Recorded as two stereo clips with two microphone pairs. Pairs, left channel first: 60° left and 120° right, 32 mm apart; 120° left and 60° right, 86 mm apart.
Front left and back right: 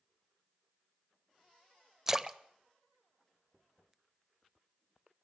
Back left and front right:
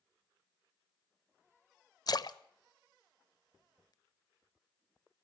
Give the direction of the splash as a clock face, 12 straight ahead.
7 o'clock.